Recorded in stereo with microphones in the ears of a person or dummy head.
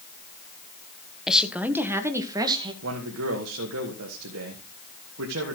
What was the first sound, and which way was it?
A woman speaking, centre (ahead or behind).